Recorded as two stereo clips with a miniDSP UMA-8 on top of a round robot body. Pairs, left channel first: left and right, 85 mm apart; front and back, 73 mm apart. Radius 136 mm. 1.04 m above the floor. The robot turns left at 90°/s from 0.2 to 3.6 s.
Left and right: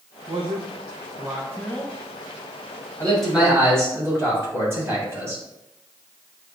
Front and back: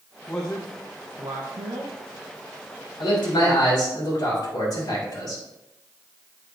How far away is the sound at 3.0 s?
About 3.5 m.